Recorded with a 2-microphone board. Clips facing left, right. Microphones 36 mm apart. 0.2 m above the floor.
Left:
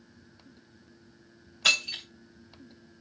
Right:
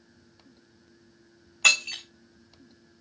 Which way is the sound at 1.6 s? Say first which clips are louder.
Right 3 dB; 75° right (ahead or behind).